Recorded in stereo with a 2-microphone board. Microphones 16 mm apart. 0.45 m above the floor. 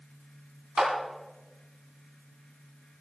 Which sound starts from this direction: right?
A clap, at 0.8 s.